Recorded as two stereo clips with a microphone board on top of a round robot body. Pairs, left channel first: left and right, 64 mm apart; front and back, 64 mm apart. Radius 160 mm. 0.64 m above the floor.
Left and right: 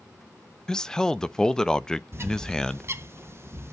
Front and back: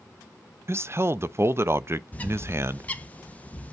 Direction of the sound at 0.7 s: 165° left.